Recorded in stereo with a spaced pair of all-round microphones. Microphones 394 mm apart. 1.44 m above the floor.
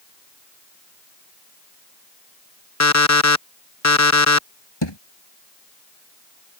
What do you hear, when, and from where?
2.8 s an alarm clock: 40° left (ahead or behind)
4.8 s a thud: 85° left